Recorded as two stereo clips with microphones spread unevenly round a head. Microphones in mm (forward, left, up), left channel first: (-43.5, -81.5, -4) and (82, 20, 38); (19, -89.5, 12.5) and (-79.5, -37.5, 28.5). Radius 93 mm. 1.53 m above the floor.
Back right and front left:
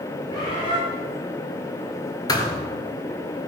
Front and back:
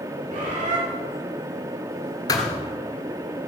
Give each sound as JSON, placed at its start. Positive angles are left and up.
{"t": 0.3, "sound": "a bird", "azimuth_deg": 145, "distance_m": 3.5}
{"t": 2.3, "sound": "a thud", "azimuth_deg": -70, "distance_m": 1.7}